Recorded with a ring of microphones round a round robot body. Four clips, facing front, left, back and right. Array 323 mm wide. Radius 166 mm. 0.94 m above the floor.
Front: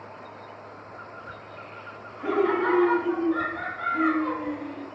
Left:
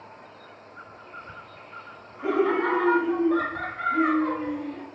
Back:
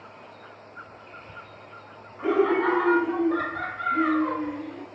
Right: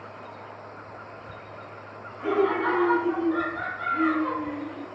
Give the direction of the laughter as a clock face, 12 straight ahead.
6 o'clock.